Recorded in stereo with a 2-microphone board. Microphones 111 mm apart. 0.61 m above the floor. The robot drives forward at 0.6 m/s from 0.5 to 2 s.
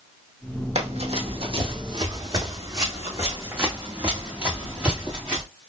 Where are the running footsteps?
70° right (ahead or behind), 1.6 m; by 5.4 s 5° right (ahead or behind), 3 m.